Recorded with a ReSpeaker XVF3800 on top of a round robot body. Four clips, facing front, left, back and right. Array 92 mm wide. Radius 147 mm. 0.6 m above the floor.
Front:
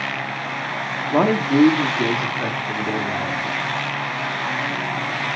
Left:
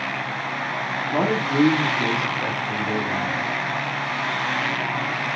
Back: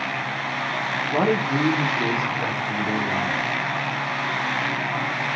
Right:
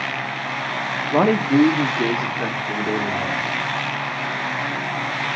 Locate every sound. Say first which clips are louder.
1.1 s a man speaking: right 5 dB, front 5 dB; 55° right, 1.2 m; by 3.5 s 80° right, 3.5 m